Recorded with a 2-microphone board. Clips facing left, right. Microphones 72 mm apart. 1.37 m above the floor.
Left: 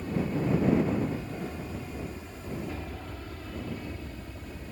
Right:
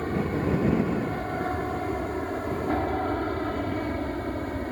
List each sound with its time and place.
0.0 s an aircraft: 55° right (ahead or behind); by 4.7 s 60° right (ahead or behind)